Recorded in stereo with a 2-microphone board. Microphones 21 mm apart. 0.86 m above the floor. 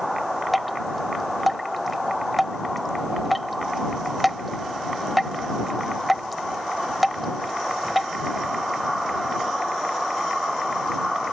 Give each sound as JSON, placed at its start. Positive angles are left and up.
{"t": 0.5, "sound": "dripping", "side_deg": -5}